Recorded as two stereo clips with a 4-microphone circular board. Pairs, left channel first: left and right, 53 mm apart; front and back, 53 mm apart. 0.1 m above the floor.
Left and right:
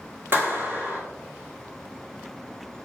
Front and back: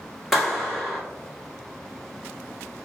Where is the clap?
90° right, 1.3 m.